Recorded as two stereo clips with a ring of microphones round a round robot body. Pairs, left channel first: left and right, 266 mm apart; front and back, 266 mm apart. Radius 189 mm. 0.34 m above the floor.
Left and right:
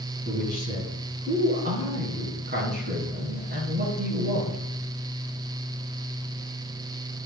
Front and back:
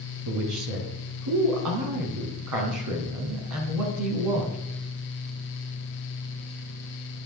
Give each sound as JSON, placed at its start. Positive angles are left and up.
{"t": 0.2, "sound": "a man speaking", "azimuth_deg": -155, "distance_m": 3.0}